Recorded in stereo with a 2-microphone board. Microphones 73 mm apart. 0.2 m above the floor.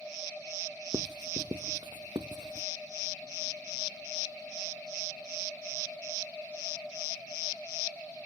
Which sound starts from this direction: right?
Writing, at 0.9 s.